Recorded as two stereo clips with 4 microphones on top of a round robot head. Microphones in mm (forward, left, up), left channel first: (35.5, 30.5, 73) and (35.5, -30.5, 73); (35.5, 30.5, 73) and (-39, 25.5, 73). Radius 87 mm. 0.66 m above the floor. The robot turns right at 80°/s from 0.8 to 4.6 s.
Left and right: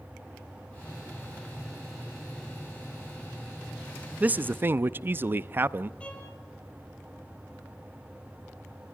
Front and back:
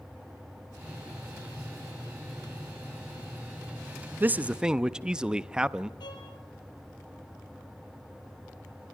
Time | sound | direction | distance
4.2 | a man speaking | 135° right | 0.6 m
6.0 | a violin | 20° left | 5 m